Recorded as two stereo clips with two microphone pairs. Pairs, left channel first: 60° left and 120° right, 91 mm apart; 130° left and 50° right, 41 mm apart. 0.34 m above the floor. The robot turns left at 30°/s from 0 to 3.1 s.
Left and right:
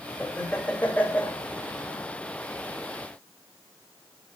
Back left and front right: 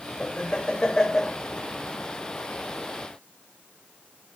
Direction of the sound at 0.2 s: 100° left.